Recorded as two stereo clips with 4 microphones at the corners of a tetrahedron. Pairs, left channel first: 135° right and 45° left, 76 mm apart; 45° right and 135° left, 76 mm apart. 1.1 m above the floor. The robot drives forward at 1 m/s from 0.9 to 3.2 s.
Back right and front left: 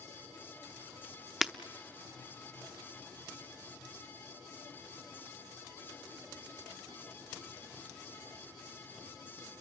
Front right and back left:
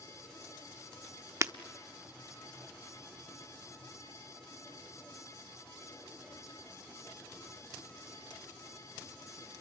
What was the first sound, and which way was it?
Breaking glass, 130° left.